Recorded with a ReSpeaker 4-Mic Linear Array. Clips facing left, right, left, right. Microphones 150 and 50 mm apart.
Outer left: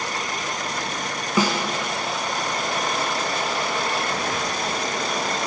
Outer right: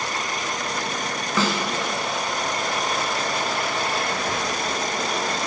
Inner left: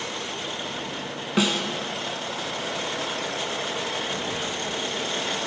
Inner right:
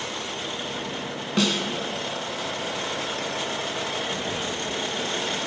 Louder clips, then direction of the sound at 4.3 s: Even, even; 35° right (ahead or behind).